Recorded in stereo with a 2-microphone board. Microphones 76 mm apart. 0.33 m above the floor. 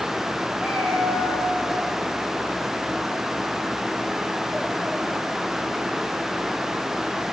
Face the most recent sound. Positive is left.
turn(degrees=-10)  # may be behind; listen again after turning